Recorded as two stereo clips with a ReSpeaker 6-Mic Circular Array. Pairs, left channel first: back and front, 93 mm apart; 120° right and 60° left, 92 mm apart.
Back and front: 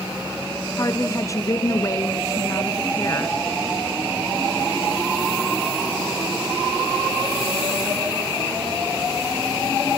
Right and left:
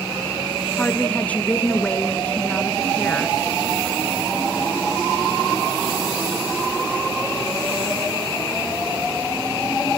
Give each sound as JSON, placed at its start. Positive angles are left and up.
{"t": 0.8, "sound": "a woman speaking", "azimuth_deg": 175, "distance_m": 1.2}